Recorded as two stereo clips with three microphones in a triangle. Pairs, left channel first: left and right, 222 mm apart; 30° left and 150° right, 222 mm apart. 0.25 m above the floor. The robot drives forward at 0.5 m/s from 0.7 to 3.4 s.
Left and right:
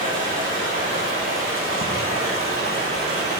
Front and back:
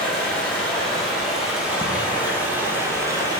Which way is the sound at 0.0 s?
55° right.